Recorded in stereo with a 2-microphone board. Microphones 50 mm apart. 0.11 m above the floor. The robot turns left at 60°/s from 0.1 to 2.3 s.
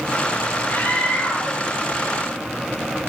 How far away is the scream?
About 2.5 m.